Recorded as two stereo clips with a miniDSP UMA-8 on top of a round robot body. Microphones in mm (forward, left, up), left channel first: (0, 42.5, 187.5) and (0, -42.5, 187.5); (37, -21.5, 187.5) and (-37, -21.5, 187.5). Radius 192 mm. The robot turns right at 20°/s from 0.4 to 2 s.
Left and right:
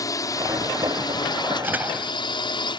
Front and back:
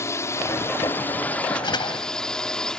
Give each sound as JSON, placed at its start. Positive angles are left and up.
{"t": 0.0, "sound": "a drone", "azimuth_deg": 50}
{"t": 1.6, "sound": "a door slam", "azimuth_deg": -25}